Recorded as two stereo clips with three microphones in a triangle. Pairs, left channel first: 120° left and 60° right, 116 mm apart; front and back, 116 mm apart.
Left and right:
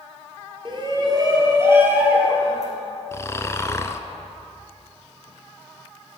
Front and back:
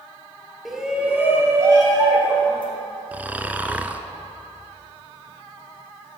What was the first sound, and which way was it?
A shout, 90° right.